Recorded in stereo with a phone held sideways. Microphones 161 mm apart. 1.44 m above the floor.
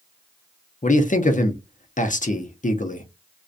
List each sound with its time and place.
0.8 s a man speaking: 55° left (ahead or behind), 0.5 m